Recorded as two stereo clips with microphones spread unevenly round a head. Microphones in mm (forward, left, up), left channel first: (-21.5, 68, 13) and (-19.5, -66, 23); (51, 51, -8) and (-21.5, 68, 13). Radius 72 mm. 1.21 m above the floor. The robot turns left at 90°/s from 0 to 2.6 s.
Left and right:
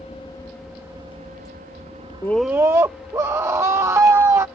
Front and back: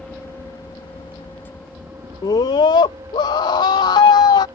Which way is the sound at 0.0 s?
60° left.